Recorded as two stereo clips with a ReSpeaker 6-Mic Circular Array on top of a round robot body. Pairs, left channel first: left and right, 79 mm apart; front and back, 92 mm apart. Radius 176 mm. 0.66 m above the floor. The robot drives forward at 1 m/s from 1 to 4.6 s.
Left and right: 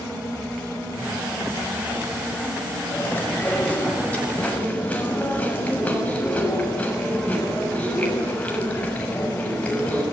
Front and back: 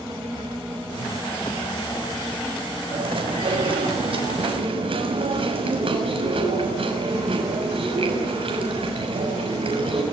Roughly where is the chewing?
Behind.